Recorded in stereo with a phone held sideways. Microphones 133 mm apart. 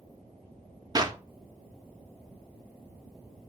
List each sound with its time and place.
0.9 s a clap: 30° right (ahead or behind), 1.1 m